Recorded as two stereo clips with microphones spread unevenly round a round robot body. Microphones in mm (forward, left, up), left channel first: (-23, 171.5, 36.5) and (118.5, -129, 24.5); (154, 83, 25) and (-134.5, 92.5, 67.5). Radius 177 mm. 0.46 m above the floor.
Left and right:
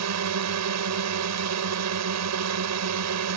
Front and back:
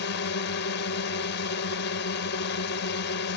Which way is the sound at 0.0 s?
40° right.